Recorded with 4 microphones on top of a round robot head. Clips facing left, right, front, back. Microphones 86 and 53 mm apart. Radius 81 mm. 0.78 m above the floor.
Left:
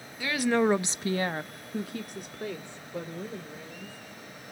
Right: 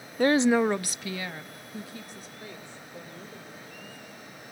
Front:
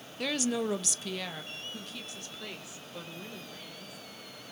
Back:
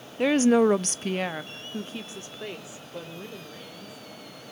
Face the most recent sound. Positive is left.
turn(degrees=110)